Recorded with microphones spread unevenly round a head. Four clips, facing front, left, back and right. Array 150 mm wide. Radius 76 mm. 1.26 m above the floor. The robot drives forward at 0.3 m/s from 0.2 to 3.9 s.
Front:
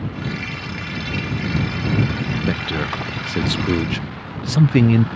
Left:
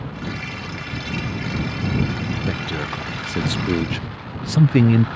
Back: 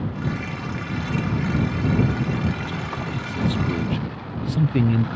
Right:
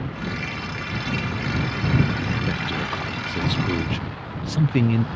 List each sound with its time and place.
2.5 s a man speaking: 20° left; by 5.1 s 45° left